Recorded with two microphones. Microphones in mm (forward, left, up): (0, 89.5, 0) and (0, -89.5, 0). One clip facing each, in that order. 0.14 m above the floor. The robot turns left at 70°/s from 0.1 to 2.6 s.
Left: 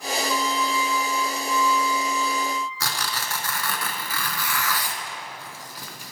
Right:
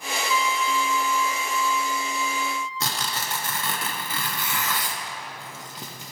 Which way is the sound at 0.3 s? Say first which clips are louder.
Right 2 dB; 60° left.